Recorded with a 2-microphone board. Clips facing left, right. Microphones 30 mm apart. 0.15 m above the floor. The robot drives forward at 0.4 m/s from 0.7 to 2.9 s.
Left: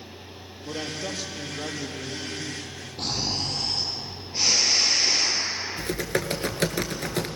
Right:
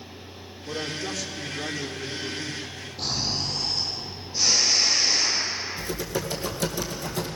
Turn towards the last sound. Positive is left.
turn(degrees=60)  # may be behind; listen again after turning